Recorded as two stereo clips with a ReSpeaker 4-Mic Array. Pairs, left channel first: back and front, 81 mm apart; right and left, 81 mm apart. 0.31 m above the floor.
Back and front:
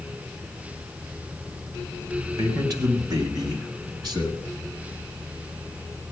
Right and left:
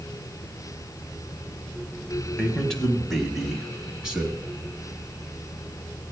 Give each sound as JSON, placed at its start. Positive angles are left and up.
{"t": 2.4, "sound": "a man speaking", "azimuth_deg": -15, "distance_m": 1.7}